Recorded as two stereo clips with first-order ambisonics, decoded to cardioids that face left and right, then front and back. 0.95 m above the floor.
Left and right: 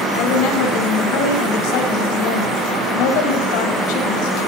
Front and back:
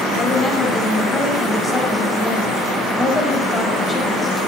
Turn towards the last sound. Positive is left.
turn(degrees=75)